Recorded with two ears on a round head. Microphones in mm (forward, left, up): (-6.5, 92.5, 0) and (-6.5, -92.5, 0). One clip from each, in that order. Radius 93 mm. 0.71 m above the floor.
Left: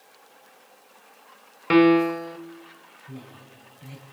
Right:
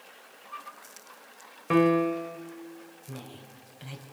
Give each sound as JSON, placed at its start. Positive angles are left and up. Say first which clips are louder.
{"t": 1.7, "sound": "a piano", "louder": "left 5 dB", "side_deg": 75, "distance_m": 0.8}
{"t": 3.1, "sound": "a woman speaking", "louder": "left 1 dB", "side_deg": -50, "distance_m": 5.0}